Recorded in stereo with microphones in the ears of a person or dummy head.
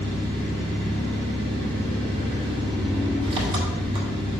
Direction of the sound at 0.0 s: 30° right (ahead or behind).